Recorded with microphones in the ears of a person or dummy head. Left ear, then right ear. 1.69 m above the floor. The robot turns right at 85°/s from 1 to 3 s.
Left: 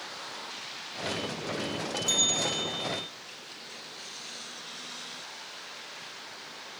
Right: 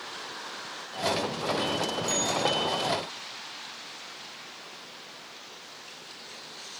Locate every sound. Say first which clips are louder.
2.1 s a bell: left 2 dB; straight ahead, 0.8 m; by 3.1 s 80° left, 0.8 m